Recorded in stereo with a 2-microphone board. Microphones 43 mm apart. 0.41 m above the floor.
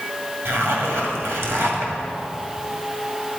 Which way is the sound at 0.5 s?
65° right (ahead or behind).